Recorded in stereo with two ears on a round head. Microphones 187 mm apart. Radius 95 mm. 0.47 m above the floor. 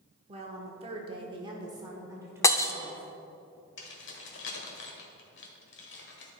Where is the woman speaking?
30° right (ahead or behind), 1.2 m; by 3.1 s 10° right (ahead or behind), 2 m.